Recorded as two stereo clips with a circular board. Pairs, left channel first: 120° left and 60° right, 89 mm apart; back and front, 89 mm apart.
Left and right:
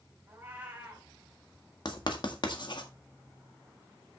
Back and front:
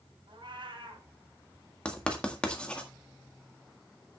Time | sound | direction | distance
0.3 | a cat meowing | 5° left | 3 m
1.9 | writing | 105° left | 1.6 m